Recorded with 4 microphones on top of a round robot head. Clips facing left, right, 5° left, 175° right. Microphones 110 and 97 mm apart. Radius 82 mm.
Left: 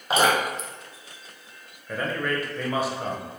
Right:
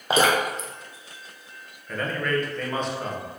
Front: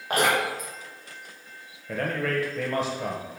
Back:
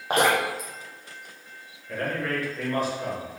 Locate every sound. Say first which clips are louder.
0.1 s dripping: right 1 dB, back 2 dB; 95° right, 0.6 m
1.9 s a man speaking: right 1 dB, front 1 dB; 10° left, 0.9 m